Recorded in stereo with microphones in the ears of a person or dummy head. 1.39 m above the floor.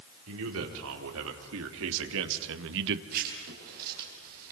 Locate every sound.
0.3 s a man speaking: 80° right, 4 m; by 3.0 s 65° right (ahead or behind), 1.4 m
3.1 s writing: 50° right (ahead or behind), 5.5 m